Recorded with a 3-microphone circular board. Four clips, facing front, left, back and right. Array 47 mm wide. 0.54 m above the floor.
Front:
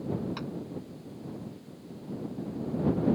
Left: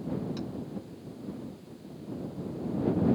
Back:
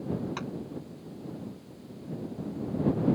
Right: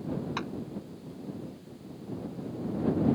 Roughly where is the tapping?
Right.